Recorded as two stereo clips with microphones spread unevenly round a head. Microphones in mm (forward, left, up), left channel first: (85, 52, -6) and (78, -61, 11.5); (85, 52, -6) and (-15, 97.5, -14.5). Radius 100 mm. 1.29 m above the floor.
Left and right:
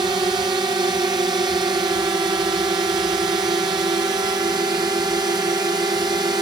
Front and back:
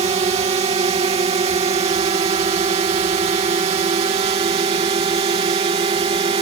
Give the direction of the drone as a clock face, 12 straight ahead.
5 o'clock.